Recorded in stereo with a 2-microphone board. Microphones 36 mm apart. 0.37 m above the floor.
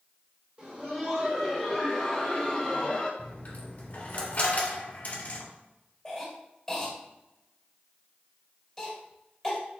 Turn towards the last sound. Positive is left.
turn(degrees=5)  # may be behind; listen again after turning